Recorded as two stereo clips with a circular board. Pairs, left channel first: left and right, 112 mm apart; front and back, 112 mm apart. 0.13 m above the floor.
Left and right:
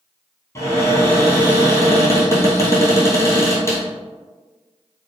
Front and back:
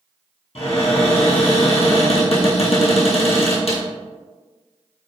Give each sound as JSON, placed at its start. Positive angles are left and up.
{"t": 0.6, "sound": "a cupboard door", "azimuth_deg": 25, "distance_m": 1.1}